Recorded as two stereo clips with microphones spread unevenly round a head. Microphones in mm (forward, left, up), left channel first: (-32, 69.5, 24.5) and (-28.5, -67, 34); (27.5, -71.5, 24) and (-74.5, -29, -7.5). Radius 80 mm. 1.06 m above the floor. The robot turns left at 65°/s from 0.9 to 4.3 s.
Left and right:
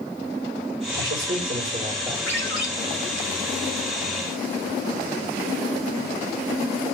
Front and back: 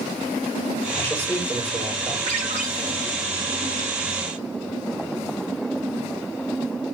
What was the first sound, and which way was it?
A man speaking, 90° right.